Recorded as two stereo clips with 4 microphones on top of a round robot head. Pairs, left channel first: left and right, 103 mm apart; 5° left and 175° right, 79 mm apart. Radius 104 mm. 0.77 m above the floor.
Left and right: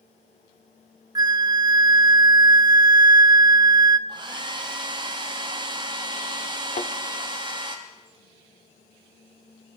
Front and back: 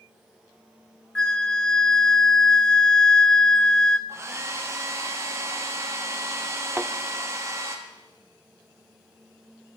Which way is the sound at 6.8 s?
115° left.